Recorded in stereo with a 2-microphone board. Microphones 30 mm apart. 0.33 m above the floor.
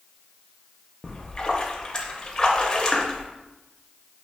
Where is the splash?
25° left (ahead or behind), 0.6 m.